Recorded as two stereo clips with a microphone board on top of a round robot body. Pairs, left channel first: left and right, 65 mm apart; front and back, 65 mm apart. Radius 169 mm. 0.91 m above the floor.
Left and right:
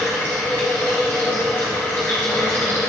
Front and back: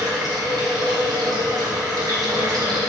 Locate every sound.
0.0 s running water: 150° left, 2.5 m